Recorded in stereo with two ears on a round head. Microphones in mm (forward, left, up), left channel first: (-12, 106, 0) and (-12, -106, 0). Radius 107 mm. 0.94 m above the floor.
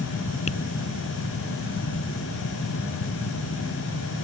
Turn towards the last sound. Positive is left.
turn(degrees=30)  # may be behind; listen again after turning